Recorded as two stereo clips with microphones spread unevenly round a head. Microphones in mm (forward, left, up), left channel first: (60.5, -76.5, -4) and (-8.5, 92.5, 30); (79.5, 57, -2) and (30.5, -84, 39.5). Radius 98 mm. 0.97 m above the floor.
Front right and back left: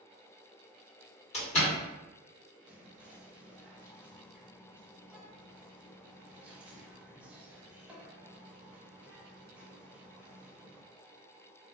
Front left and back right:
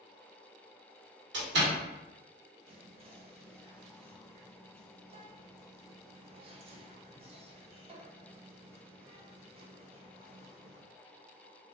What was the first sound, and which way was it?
A door slam, 125° right.